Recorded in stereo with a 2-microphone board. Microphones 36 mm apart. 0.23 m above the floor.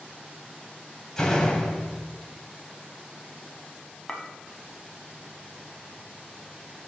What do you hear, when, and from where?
1.2 s a door slam: 15° left (ahead or behind), 1.1 m
4.1 s a clink: 10° left (ahead or behind), 0.9 m